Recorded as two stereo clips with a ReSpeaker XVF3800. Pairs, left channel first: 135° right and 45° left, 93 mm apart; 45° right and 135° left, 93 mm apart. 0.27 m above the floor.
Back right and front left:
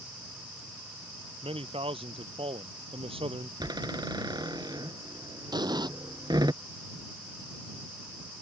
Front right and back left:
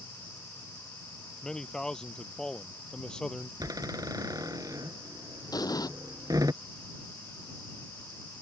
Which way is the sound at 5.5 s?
5° left.